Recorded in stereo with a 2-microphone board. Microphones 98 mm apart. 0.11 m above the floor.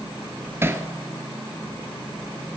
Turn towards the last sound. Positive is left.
turn(degrees=-25)  # may be behind; listen again after turning